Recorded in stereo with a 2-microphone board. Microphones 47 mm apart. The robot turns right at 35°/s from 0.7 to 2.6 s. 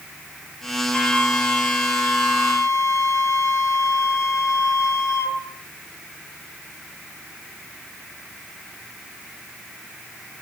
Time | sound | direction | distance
0.9 | a flute | 20° left | 3 m